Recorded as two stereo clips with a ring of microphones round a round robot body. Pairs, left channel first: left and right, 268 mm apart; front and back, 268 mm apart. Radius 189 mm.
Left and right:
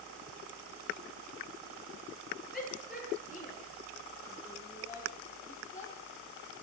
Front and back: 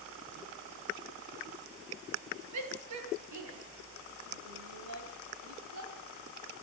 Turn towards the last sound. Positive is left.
turn(degrees=-175)